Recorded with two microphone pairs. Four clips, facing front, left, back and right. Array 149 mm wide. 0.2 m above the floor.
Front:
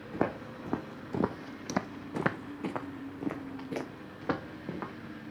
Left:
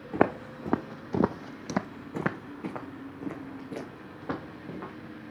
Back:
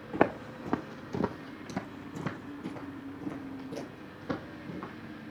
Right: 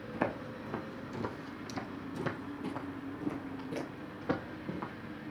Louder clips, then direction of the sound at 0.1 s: Left 9 dB, back 5 dB; 130° left.